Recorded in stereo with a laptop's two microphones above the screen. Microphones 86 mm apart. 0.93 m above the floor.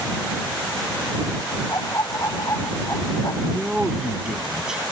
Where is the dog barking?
40° left (ahead or behind).